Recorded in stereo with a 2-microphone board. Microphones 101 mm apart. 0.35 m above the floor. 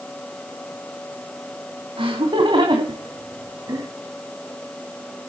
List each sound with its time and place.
2.0 s laughter: 60° right (ahead or behind), 2.5 m; by 3.9 s 35° right (ahead or behind), 2.5 m